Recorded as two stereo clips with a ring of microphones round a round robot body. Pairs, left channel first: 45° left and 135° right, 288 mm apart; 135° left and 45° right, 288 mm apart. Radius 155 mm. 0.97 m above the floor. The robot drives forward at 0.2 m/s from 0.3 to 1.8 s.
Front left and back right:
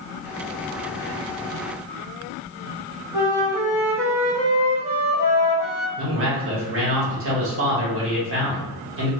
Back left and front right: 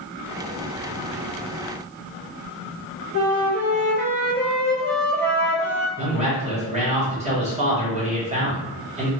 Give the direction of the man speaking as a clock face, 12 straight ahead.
4 o'clock.